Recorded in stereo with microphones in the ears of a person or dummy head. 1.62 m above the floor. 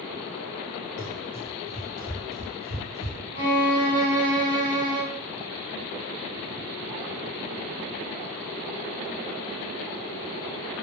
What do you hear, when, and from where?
1.0 s running footsteps: 35° left (ahead or behind), 1.9 m; by 3.2 s 30° right (ahead or behind), 1.8 m
3.3 s a violin: 30° left (ahead or behind), 1.6 m